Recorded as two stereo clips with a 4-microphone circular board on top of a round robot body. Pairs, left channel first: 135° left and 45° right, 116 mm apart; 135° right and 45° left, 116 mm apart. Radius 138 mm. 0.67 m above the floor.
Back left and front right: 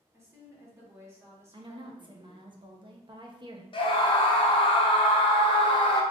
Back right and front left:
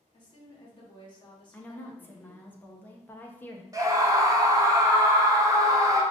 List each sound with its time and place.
0.1 s a woman speaking: 105° right, 1.6 m
1.5 s a woman speaking: 65° right, 0.9 m
3.7 s a scream: 100° left, 1.0 m